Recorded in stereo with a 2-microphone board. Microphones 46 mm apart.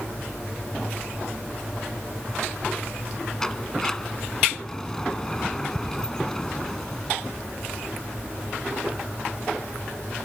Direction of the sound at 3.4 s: 10° left (ahead or behind).